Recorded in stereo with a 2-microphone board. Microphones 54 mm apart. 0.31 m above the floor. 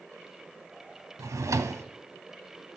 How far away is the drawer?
About 0.7 m.